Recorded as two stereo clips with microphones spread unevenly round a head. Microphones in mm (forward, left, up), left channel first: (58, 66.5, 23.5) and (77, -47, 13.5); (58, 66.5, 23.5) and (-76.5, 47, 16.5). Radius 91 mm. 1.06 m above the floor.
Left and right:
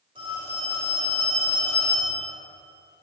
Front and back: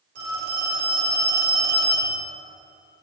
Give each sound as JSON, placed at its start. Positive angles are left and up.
{"t": 0.1, "sound": "a phone ringing", "azimuth_deg": -145, "distance_m": 3.0}